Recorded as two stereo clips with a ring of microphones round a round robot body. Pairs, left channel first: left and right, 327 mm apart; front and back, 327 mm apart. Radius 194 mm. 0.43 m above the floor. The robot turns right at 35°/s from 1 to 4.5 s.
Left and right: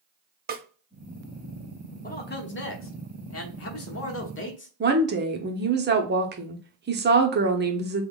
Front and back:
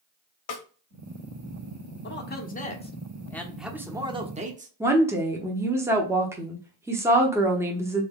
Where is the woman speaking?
105° right, 0.9 m.